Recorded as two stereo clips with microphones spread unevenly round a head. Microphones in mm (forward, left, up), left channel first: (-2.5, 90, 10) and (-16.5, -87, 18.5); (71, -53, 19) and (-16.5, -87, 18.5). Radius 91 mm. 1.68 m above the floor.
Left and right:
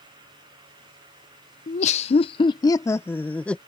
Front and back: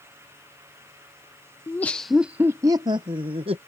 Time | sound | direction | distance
1.7 | laughter | 75° left | ?